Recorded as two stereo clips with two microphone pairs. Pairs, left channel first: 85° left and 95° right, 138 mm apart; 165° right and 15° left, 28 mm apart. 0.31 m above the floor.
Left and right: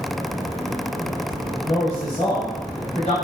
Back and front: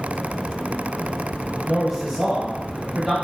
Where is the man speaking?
100° left, 1.1 m; by 3.1 s 80° left, 1.7 m.